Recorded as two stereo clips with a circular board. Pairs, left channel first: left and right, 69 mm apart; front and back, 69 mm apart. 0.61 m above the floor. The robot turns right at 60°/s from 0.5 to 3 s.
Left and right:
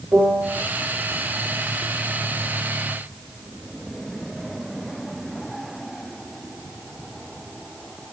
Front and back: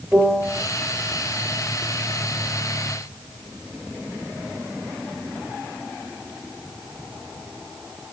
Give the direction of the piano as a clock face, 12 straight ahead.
4 o'clock.